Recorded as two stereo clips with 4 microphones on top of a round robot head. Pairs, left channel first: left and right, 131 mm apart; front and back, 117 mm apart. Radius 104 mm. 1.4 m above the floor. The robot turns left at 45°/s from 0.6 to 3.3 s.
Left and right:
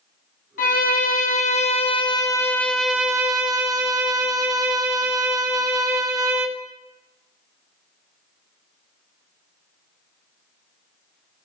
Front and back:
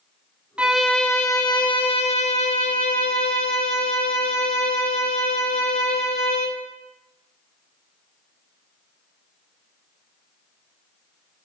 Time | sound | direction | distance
0.6 | a violin | 100° left | 1.0 m